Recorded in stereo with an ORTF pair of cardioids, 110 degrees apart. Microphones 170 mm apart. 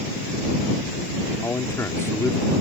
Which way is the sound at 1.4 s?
15° left.